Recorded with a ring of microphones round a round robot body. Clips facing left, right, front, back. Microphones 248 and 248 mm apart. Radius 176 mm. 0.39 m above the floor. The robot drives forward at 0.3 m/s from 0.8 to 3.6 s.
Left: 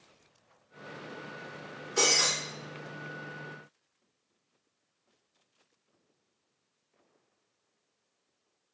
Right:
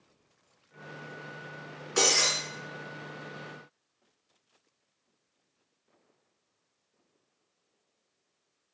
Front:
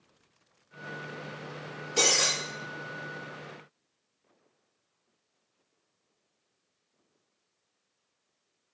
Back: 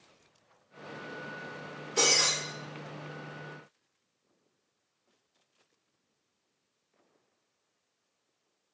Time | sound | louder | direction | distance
2.0 | breaking glass | right 2 dB, front 1 dB | 85° right | 1.5 m